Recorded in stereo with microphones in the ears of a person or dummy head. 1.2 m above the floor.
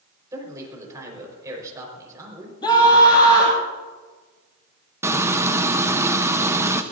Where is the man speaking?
20° right (ahead or behind), 4.5 m.